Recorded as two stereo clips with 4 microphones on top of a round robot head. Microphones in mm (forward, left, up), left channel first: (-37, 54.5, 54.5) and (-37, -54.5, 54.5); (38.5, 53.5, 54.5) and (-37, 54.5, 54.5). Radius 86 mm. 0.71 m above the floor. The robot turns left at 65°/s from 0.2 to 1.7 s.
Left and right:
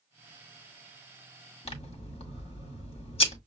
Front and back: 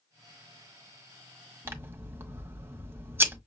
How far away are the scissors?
About 1.6 m.